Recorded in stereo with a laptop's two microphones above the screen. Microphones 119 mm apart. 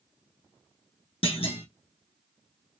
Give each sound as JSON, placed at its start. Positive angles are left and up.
{"t": 1.2, "sound": "a clunk", "side_deg": 55, "distance_m": 0.7}